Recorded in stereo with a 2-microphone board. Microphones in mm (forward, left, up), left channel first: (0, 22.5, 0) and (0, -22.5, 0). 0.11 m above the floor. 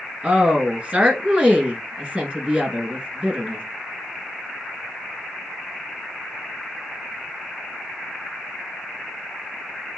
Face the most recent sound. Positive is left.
turn(degrees=-25)  # may be behind; listen again after turning